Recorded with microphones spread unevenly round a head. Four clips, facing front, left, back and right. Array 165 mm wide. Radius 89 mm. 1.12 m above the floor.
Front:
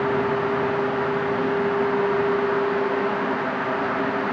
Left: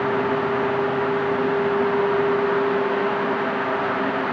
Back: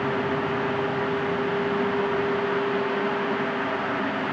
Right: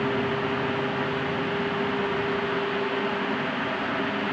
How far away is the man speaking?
I don't hear a man speaking.